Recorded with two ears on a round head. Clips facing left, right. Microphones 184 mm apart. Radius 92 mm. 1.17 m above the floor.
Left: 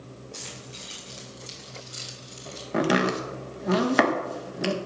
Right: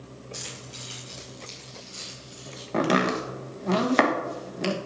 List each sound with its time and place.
0.3 s keys jangling: 10° right (ahead or behind), 5 m; by 2.6 s 35° left (ahead or behind), 4 m
2.7 s chopping: 5° left (ahead or behind), 1.3 m